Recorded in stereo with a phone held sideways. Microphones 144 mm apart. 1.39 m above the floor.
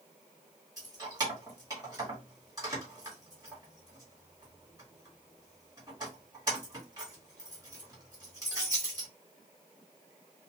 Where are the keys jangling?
25° right (ahead or behind), 2.0 m.